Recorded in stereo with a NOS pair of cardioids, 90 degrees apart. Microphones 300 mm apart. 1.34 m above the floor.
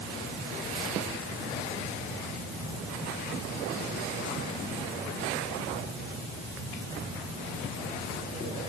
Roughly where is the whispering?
No whispering in this recording.